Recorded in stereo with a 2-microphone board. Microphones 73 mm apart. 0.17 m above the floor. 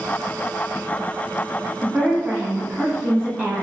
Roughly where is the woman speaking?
Centre.